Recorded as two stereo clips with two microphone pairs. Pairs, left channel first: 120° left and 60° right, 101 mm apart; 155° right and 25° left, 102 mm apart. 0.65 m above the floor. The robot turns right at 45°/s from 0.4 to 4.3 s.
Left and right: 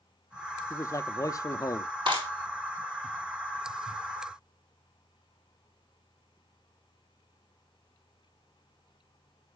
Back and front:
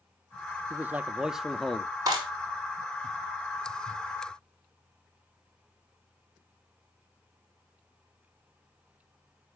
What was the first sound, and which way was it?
A man speaking, 85° left.